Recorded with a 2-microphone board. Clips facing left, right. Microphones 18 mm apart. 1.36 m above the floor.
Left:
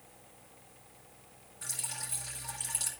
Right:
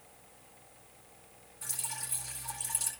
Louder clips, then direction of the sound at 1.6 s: Even; 25° left (ahead or behind).